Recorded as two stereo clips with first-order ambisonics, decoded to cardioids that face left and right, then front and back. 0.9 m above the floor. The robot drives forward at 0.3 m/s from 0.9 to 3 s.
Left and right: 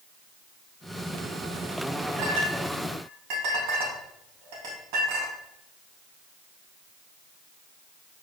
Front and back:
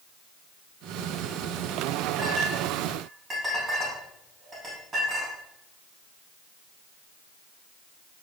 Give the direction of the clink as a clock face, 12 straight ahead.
3 o'clock.